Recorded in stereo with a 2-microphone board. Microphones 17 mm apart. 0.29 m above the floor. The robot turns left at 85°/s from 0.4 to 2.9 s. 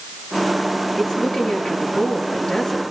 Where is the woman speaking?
160° left, 5.5 m; by 2.8 s 5° left, 5.5 m.